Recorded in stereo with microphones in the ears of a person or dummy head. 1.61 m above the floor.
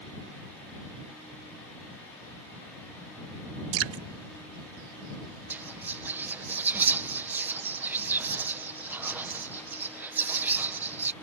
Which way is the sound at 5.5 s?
10° right (ahead or behind).